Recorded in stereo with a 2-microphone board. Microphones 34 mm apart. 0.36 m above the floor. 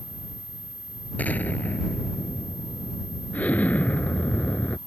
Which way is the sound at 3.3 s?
50° left (ahead or behind).